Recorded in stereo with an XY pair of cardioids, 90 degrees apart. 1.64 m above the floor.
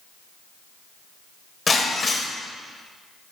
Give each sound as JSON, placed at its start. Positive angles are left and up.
{"t": 1.7, "sound": "breaking glass", "azimuth_deg": 35, "distance_m": 5.0}